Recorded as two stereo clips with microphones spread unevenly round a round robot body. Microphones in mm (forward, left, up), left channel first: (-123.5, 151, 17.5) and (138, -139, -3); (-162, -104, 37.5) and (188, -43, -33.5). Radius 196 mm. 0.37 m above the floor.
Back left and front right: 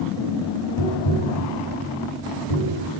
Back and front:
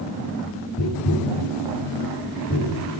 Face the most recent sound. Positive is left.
turn(degrees=130)